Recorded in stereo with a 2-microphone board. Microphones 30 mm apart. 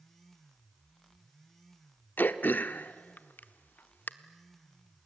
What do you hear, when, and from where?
2.2 s throat clearing: 80° left, 0.8 m